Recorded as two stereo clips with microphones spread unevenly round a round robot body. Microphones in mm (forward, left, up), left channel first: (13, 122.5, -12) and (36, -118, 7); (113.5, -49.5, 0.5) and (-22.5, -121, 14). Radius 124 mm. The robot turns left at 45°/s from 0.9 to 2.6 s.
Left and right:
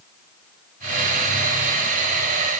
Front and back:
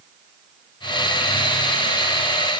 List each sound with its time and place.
Only background noise.